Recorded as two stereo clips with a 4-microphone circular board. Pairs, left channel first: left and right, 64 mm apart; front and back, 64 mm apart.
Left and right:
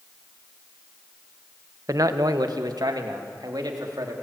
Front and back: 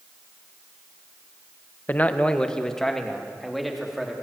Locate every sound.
1.9 s a man speaking: 60° right, 1.1 m; by 4.1 s 95° right, 3.5 m